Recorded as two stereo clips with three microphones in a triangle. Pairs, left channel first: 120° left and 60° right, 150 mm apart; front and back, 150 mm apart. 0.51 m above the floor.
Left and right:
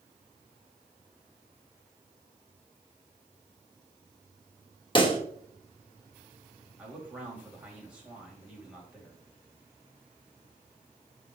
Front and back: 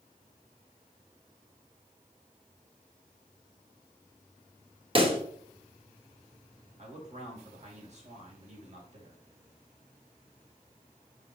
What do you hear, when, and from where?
5.0 s a pop: 155° left, 1.2 m
6.8 s a man speaking: 145° right, 2.5 m